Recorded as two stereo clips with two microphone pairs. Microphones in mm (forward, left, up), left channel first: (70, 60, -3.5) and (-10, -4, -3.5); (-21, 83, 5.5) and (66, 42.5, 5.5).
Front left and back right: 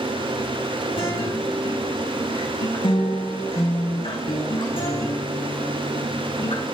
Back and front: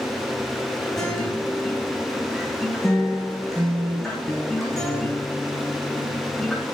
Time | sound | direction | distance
1.0 | a guitar | 70° left | 5.5 m